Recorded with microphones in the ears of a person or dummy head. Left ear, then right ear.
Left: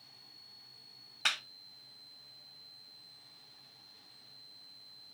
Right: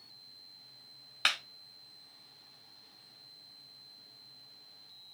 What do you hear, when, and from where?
1.2 s a clap: 20° right (ahead or behind), 0.6 m